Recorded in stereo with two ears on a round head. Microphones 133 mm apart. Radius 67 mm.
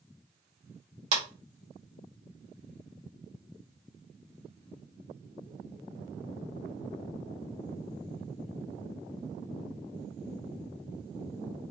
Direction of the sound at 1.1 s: 55° right (ahead or behind).